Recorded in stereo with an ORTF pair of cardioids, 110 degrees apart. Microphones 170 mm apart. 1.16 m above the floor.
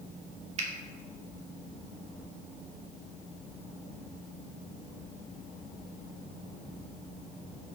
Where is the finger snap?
40° right, 1.5 m.